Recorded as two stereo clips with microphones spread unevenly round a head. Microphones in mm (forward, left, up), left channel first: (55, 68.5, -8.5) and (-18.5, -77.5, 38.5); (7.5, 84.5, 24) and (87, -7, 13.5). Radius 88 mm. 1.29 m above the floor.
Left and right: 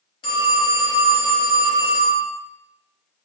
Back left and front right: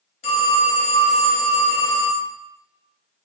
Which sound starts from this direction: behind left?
A phone ringing, at 0.2 s.